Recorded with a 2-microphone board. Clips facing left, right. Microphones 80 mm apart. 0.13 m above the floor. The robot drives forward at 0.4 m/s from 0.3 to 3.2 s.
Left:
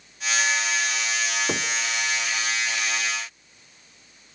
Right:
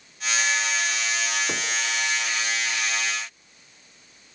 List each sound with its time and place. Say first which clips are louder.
1.5 s knocking: left 2 dB; 20° left (ahead or behind), 1.2 m